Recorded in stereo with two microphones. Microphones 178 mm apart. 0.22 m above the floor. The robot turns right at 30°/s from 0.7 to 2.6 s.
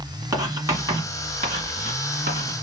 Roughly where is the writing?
Centre.